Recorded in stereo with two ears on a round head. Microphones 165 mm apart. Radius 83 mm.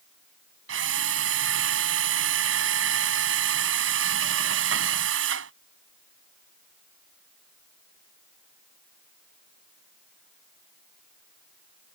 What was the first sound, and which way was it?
A drill, 85° right.